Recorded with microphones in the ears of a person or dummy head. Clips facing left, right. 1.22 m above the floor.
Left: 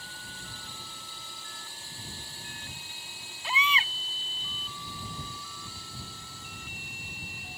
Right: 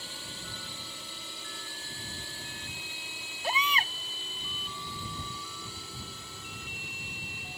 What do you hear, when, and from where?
0.0 s a drone: 60° right (ahead or behind); by 7.6 s 65° right (ahead or behind)
3.4 s a baby crying: 35° right (ahead or behind)